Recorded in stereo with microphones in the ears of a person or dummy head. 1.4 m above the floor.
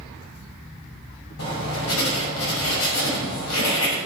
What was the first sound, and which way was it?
Writing, 85° left.